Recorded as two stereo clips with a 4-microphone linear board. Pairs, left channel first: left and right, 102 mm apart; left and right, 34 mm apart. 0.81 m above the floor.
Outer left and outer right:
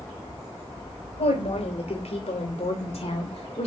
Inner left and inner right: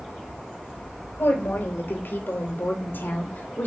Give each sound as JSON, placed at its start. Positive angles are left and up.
{"t": 1.2, "sound": "a woman speaking", "side_deg": 80, "distance_m": 3.5}